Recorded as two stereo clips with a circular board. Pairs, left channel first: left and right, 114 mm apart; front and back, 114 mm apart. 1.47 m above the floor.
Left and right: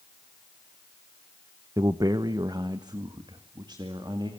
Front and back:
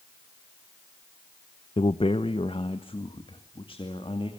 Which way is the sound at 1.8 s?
35° right.